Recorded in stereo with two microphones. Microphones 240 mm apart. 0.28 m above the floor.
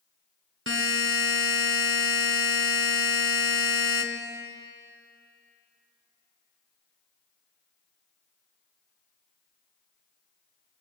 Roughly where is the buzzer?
Right.